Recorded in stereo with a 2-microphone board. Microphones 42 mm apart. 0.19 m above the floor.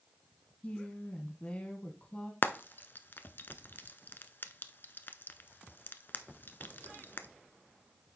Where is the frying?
55° left (ahead or behind), 0.7 m.